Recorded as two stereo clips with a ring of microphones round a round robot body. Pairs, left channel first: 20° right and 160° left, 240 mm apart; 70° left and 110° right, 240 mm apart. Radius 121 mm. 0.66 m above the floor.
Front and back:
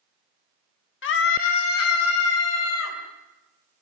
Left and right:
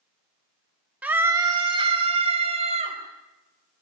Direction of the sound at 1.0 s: 30° right.